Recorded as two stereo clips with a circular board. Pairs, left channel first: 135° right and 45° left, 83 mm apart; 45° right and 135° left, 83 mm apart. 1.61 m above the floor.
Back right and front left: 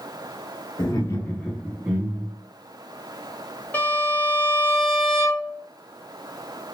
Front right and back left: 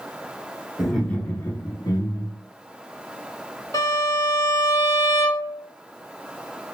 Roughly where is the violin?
Right.